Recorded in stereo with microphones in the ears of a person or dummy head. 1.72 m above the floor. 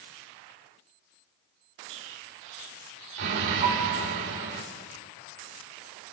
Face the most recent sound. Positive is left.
turn(degrees=-20)  # may be behind; listen again after turning